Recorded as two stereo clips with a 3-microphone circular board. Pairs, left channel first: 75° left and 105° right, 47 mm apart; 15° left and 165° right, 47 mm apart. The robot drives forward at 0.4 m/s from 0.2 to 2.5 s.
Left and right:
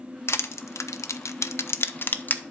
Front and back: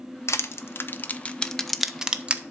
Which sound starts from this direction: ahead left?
Crushing, at 0.3 s.